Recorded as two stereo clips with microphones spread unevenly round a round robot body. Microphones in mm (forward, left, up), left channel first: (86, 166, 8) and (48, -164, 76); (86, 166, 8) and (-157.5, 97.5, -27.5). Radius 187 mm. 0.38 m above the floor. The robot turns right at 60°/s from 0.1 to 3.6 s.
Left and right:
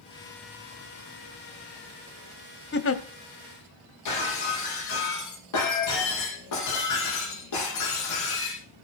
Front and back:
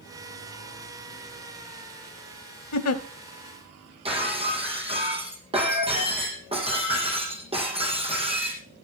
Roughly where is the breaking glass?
Behind left.